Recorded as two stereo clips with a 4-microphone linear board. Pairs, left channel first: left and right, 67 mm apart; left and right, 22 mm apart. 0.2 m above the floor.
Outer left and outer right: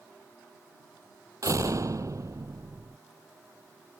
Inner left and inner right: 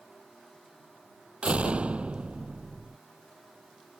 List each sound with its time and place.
1.4 s a door slam: 55° right (ahead or behind)